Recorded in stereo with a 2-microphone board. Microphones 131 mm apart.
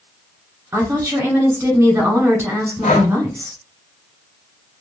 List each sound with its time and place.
0.7 s a woman speaking: 20° right (ahead or behind), 1.1 m
2.8 s breathing: 85° left, 0.5 m